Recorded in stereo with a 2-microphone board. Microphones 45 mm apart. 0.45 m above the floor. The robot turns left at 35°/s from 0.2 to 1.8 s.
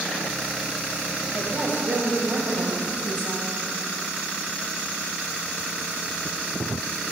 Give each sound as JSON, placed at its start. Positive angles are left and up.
{"t": 1.3, "sound": "a woman speaking", "side_deg": -55, "distance_m": 2.5}